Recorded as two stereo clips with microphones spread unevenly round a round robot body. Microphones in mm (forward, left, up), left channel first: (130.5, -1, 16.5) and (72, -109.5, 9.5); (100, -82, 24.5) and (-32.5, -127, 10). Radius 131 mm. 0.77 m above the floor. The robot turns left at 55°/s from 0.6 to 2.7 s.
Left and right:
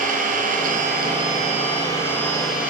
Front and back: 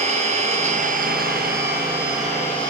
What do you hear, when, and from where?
0.0 s an engine running: 125° right, 10 m; by 2.7 s 120° left, 10 m